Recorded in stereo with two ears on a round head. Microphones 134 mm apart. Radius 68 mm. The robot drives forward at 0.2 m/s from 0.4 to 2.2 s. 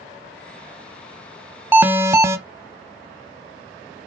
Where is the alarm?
15° right (ahead or behind), 0.7 m.